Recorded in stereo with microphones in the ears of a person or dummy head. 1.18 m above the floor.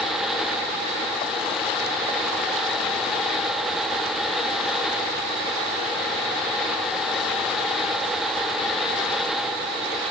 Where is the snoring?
I don't hear snoring.